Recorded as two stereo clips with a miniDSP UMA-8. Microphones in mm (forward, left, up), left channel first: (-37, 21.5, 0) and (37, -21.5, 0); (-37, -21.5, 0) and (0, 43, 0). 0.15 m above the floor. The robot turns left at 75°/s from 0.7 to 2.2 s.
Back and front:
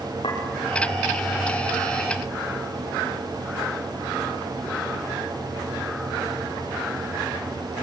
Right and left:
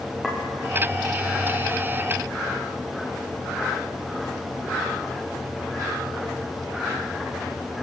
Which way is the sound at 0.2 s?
150° left.